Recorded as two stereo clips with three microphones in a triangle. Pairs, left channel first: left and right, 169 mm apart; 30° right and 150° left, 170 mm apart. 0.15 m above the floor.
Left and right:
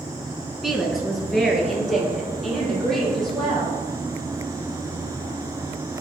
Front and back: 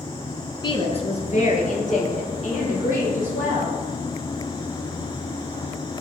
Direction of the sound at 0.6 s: 5° right.